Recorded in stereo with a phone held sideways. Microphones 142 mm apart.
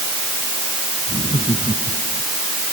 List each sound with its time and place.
1.1 s laughter: 35° right (ahead or behind); by 2.2 s 30° right (ahead or behind)